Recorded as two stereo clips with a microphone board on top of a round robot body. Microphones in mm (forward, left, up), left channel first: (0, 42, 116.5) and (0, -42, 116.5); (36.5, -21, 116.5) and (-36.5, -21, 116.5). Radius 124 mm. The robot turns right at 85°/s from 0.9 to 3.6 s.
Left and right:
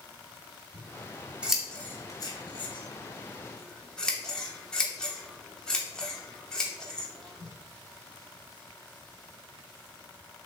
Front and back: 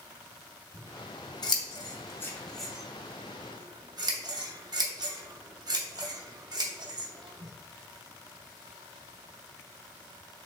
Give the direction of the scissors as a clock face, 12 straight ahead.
2 o'clock.